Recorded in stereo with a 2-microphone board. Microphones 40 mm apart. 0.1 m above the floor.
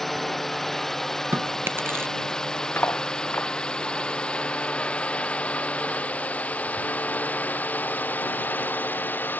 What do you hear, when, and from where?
0.0 s a drone: centre (ahead or behind); by 9.4 s 45° left (ahead or behind)
1.3 s chewing: 75° right (ahead or behind)
2.8 s cutlery clinking: 60° left (ahead or behind)